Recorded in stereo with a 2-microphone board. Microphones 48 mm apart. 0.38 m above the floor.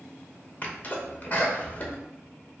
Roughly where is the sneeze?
Left.